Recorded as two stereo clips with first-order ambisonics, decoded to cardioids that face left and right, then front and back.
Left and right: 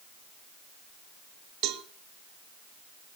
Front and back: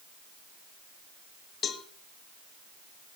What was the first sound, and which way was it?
A cowbell, 60° right.